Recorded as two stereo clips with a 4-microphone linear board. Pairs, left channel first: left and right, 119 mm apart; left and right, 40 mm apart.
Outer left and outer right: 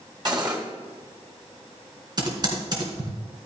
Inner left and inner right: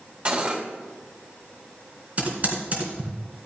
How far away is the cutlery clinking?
About 2.5 m.